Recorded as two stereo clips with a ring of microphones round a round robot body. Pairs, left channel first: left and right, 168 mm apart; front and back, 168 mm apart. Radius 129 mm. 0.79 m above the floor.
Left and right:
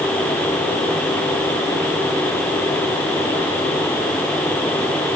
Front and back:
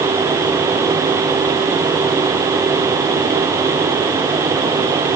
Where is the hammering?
No hammering in this recording.